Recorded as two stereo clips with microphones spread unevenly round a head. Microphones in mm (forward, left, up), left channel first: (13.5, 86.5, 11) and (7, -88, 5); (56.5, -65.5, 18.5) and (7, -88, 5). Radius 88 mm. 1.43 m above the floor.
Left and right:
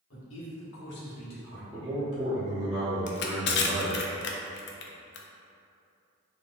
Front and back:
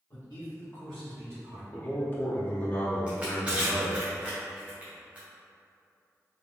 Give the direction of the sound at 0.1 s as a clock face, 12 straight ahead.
9 o'clock.